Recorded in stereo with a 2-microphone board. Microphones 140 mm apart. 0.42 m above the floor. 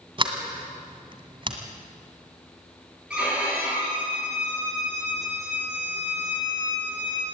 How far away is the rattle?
No rattle in this recording.